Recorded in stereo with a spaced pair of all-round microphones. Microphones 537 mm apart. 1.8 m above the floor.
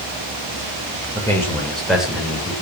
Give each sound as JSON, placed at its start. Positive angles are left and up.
{"t": 1.1, "sound": "a man speaking", "side_deg": 5, "distance_m": 8.5}